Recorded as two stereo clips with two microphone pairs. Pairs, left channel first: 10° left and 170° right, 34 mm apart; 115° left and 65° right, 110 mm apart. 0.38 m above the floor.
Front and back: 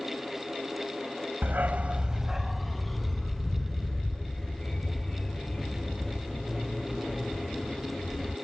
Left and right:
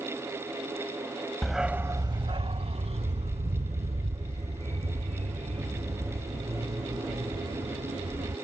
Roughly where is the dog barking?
Behind.